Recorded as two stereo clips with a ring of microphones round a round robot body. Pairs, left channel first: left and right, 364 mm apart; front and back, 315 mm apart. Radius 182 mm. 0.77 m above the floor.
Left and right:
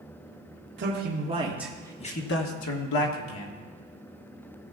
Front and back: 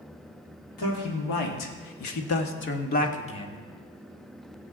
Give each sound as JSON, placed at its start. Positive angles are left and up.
{"t": 0.8, "sound": "a man speaking", "azimuth_deg": -35, "distance_m": 1.7}